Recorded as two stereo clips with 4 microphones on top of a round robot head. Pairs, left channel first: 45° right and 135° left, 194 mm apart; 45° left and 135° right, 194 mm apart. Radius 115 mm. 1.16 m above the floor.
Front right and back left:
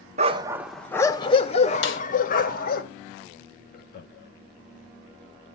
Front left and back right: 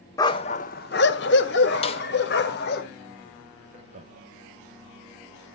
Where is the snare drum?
15° right, 1.4 m.